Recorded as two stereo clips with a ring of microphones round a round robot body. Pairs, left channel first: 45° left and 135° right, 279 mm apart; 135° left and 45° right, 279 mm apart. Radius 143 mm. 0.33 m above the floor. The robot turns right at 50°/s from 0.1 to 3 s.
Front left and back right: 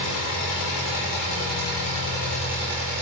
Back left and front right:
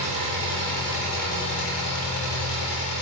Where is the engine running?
20° left, 3.5 m; by 3.0 s 165° left, 3.5 m.